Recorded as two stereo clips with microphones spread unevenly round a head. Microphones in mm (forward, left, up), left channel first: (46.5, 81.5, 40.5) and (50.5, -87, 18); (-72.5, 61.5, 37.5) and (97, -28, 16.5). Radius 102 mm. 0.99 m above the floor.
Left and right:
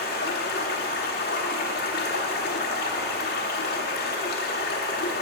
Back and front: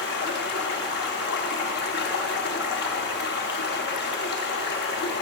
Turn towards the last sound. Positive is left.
turn(degrees=125)